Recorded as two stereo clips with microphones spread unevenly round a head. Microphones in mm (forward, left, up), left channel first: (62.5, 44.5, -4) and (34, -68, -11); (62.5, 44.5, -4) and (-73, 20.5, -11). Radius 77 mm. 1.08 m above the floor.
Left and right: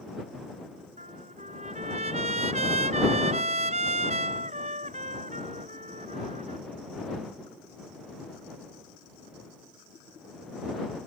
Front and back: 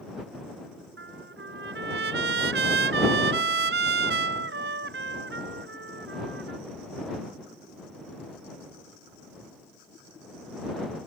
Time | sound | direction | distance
1.0 | a trumpet | 160° right | ?